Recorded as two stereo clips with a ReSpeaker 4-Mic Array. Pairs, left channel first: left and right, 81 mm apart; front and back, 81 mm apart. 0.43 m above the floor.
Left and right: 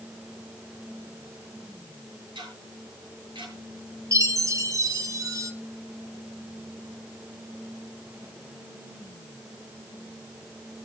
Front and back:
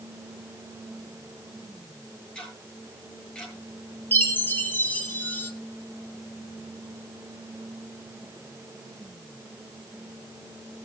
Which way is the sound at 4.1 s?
60° right.